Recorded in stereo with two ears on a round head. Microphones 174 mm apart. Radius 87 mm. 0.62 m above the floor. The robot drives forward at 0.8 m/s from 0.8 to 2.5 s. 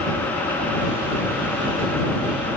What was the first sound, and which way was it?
Only background noise.